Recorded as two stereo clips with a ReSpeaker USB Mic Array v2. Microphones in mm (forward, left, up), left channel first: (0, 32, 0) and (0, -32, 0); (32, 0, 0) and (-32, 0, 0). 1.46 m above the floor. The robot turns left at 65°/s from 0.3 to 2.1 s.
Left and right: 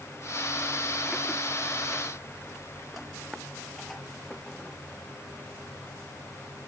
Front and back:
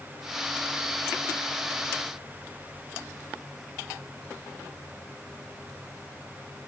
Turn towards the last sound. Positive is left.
No sound to turn to.